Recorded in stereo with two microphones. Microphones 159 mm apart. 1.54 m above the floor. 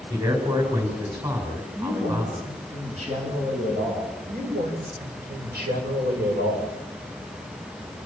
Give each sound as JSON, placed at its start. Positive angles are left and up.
{"t": 0.1, "sound": "a man speaking", "side_deg": -30, "distance_m": 7.5}
{"t": 1.8, "sound": "a man speaking", "side_deg": -45, "distance_m": 8.5}
{"t": 4.3, "sound": "a man speaking", "side_deg": -85, "distance_m": 7.5}